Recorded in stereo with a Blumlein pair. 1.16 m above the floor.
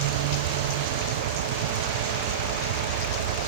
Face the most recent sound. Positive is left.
turn(degrees=-55)